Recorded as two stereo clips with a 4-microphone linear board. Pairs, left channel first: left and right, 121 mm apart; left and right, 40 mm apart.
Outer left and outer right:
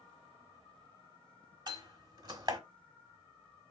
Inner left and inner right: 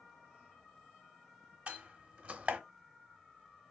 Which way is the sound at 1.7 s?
35° right (ahead or behind).